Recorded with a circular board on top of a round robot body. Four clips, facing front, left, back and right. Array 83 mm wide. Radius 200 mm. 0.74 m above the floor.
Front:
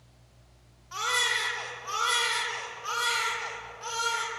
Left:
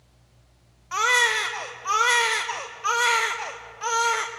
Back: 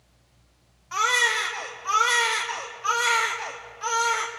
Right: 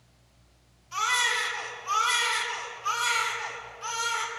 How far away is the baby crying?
About 1.5 m.